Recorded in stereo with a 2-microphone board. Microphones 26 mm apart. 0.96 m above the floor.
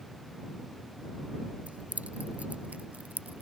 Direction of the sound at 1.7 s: 75° right (ahead or behind).